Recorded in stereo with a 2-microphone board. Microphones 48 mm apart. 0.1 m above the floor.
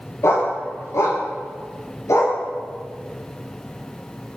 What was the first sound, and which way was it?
A dog barking, 80° left.